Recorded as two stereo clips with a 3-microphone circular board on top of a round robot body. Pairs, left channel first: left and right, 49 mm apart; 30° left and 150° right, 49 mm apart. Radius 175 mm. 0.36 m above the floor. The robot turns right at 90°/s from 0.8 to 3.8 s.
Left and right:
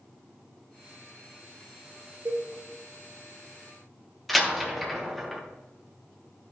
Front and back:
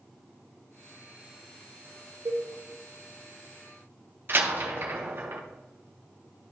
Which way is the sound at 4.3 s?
Straight behind.